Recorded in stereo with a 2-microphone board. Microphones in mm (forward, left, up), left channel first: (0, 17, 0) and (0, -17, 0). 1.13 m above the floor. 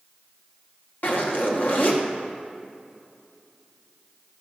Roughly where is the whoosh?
No whoosh in this recording.